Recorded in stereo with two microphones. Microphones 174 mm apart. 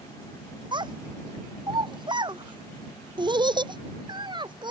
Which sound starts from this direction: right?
A child speaking, at 0.7 s.